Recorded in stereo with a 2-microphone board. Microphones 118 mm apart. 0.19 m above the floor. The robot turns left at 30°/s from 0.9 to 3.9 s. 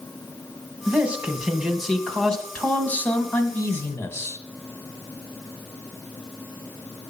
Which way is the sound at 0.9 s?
10° right (ahead or behind).